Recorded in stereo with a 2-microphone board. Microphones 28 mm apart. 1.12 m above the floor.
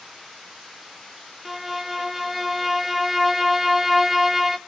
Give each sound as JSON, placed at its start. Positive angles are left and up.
{"t": 1.4, "sound": "a violin", "side_deg": -5, "distance_m": 0.7}